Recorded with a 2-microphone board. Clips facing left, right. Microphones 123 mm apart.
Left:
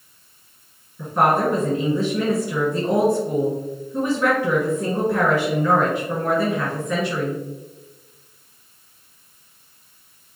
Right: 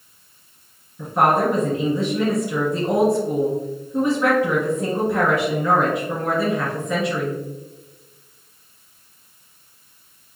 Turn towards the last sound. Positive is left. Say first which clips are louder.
# right 1 dB
turn(degrees=-10)  # may be behind; listen again after turning